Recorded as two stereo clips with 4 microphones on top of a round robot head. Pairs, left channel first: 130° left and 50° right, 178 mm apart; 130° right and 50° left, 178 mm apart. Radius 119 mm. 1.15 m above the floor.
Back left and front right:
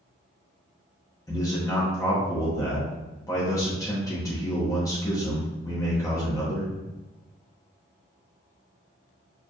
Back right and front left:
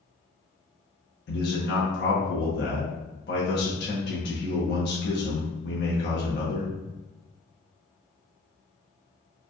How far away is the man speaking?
About 1.1 m.